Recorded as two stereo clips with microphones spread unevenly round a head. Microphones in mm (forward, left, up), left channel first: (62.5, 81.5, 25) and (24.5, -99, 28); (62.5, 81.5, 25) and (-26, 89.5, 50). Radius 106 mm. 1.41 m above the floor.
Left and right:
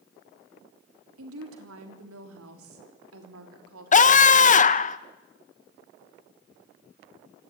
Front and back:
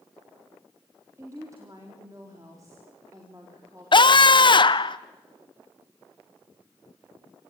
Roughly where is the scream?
Ahead left.